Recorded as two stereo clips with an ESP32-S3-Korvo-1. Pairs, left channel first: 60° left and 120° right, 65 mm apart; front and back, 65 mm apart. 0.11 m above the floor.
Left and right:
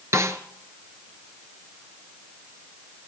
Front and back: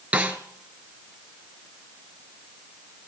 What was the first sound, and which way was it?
A snare drum, 115° right.